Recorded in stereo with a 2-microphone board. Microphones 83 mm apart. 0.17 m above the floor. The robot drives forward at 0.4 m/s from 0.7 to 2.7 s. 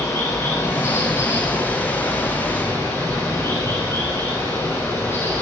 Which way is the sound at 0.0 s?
40° left (ahead or behind).